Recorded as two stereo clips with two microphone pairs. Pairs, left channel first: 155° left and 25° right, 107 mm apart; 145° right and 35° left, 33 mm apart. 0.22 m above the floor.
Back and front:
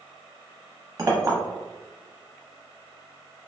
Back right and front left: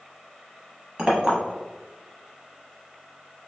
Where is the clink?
Straight ahead, 0.7 m.